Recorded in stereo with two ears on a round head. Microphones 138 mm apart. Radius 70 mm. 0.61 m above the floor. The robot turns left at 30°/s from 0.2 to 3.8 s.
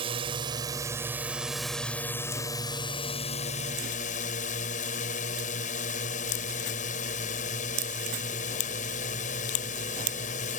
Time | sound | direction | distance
0.0 | a drone | 140° right | ?